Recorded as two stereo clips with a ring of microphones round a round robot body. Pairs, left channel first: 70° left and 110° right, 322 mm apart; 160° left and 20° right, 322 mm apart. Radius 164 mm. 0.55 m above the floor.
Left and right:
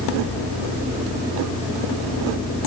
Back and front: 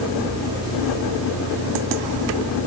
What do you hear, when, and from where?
Only background noise.